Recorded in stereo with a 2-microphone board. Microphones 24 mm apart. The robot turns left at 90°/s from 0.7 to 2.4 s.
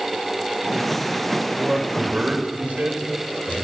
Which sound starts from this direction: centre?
A man speaking, at 1.6 s.